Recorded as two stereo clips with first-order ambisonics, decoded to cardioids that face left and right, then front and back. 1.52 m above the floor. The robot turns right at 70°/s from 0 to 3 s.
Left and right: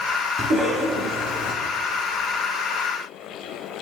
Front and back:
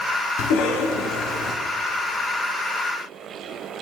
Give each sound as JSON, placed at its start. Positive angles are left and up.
{"t": 0.4, "sound": "a cough", "azimuth_deg": -20, "distance_m": 1.0}